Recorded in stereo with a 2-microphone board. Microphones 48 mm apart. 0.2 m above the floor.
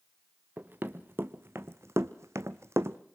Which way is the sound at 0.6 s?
40° right (ahead or behind).